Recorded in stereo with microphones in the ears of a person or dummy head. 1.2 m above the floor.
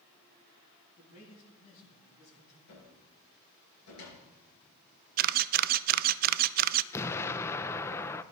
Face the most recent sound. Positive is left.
turn(degrees=10)  # may be behind; listen again after turning